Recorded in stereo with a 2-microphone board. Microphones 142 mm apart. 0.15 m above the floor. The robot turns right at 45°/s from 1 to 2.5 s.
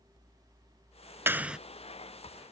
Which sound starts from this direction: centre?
A clap, at 1.3 s.